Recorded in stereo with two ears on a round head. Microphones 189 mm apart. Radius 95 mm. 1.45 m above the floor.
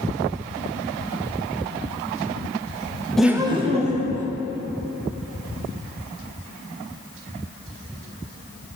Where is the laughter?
5° left (ahead or behind), 0.6 m; by 4.2 s 40° right (ahead or behind), 1.5 m.